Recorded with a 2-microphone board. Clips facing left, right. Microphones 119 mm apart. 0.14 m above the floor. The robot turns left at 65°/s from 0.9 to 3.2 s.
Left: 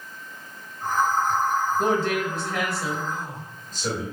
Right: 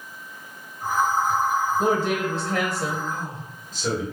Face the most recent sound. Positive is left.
turn(degrees=-10)  # may be behind; listen again after turning